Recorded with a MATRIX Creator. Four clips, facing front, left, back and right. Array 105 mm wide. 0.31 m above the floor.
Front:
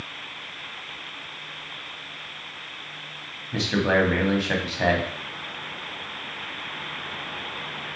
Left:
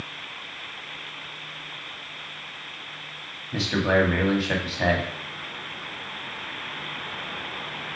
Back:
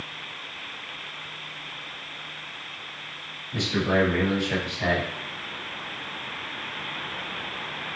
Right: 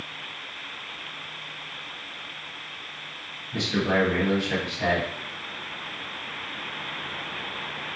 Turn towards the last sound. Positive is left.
turn(degrees=40)